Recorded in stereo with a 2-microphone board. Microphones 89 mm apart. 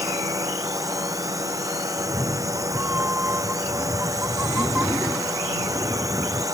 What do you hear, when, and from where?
0.0 s a drone: 40° right (ahead or behind)
2.0 s a cat meowing: 20° right (ahead or behind)